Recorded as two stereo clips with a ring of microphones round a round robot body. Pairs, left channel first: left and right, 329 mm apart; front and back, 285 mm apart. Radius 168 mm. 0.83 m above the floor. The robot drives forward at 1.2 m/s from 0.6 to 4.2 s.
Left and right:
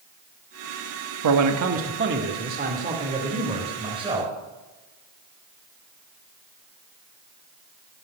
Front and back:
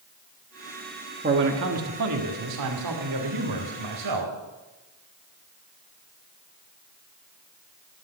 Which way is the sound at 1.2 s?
120° right.